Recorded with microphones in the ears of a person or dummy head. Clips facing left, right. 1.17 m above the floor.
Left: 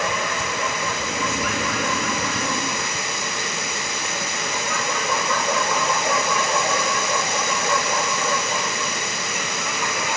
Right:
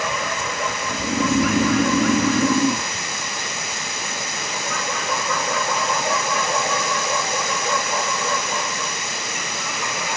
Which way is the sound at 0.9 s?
65° right (ahead or behind).